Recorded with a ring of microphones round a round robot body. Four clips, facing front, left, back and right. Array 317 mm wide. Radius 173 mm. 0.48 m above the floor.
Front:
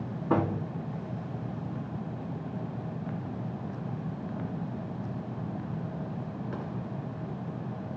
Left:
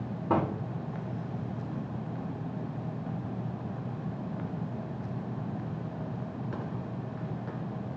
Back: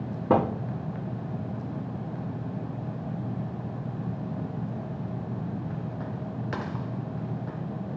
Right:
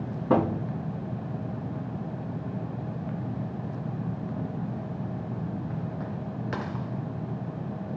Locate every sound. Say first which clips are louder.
0.3 s a thud: right 5 dB, back 4 dB; 170° right, 3.5 m